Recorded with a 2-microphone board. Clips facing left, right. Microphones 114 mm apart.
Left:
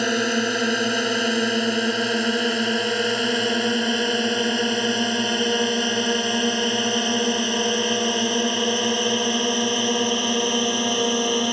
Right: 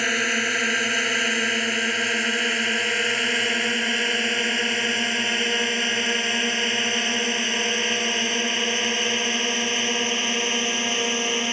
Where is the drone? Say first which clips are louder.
Left 5 dB; 20° left (ahead or behind); by 11.5 s 15° left (ahead or behind).